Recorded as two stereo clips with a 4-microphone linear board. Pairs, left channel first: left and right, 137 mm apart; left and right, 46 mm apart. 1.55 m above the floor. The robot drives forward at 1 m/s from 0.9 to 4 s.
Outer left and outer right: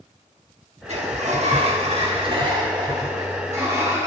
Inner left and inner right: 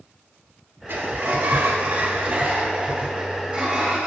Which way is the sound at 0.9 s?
50° right (ahead or behind).